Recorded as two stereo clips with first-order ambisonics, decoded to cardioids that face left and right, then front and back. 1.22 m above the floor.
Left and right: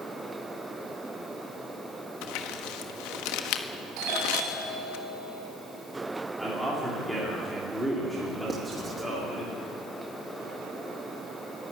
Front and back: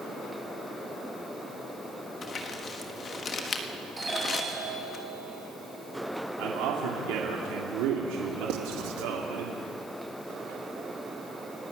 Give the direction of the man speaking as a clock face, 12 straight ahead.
6 o'clock.